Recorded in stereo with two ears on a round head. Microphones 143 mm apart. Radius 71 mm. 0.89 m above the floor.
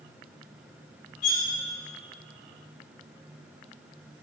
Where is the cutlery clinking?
50° left (ahead or behind), 1.1 m.